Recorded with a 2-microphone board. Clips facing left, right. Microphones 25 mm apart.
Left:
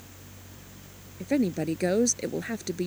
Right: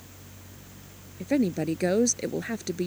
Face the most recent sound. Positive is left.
turn(degrees=0)  # may be behind; listen again after turning